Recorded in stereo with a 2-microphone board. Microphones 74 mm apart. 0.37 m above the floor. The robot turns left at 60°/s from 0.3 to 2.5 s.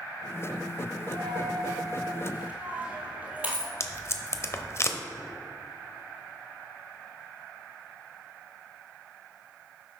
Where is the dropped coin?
75° right (ahead or behind), 1.6 m; by 3.7 s 20° right (ahead or behind), 1.6 m.